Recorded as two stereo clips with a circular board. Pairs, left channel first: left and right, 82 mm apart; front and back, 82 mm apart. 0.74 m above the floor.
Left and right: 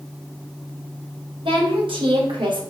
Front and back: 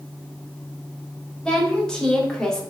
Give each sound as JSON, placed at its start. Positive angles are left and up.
{"t": 1.4, "sound": "a woman speaking", "azimuth_deg": -80, "distance_m": 4.0}